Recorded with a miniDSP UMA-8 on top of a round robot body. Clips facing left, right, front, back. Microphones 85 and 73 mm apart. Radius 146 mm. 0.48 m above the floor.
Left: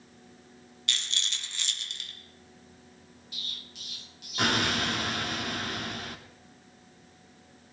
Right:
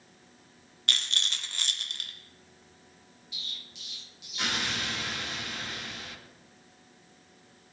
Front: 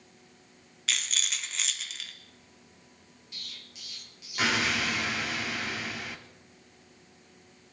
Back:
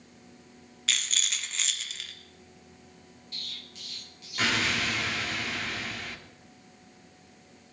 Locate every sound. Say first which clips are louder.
0.9 s a rattle: right 2 dB, back 1 dB; 85° right, 1.6 m
3.3 s an explosion: left 1 dB, back 2 dB; 85° left, 1.5 m